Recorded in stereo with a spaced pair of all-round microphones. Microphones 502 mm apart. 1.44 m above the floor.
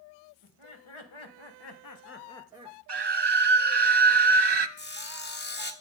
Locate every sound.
0.4 s laughter: 80° left, 1.8 m; by 2.8 s 20° right (ahead or behind), 0.8 m
2.9 s a scream: 55° right (ahead or behind), 0.6 m
4.8 s sawing: 20° left (ahead or behind), 0.8 m